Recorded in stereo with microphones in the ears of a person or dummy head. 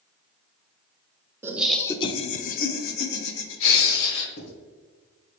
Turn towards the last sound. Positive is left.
turn(degrees=70)  # may be behind; listen again after turning